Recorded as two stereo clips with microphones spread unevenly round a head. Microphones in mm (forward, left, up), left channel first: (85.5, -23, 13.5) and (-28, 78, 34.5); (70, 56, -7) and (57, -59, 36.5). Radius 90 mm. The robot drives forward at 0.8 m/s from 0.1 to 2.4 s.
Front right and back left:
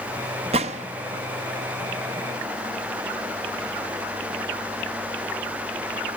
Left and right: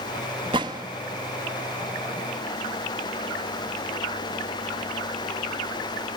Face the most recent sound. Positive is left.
turn(degrees=-175)